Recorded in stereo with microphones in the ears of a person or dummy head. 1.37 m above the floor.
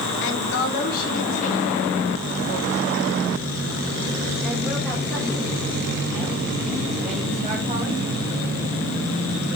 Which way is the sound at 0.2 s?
65° left (ahead or behind).